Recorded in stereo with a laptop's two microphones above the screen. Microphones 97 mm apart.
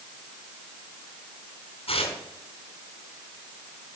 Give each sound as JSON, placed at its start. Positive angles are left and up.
{"t": 1.9, "sound": "tearing paper", "side_deg": 75, "distance_m": 3.0}